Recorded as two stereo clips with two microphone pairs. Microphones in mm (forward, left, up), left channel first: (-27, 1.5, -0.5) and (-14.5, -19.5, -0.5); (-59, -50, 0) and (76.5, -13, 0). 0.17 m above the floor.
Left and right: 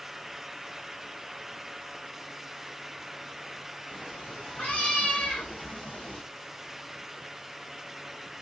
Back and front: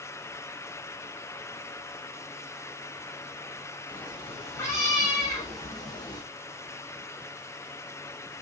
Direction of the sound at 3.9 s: 120° left.